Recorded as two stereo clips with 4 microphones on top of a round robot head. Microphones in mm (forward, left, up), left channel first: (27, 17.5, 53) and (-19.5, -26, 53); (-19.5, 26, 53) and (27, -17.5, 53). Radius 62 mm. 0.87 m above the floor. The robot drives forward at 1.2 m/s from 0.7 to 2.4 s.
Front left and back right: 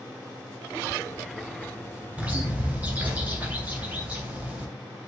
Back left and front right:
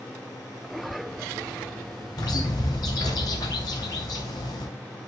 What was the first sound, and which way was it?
A bird, 155° left.